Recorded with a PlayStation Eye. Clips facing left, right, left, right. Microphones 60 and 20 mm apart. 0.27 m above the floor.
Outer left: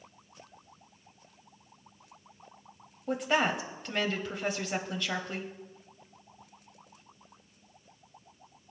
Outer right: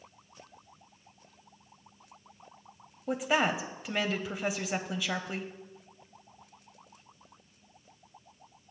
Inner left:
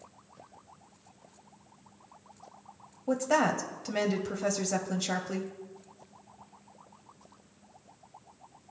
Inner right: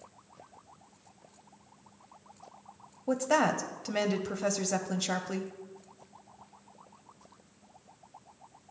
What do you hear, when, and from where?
3.1 s a woman speaking: 5° right (ahead or behind), 1.0 m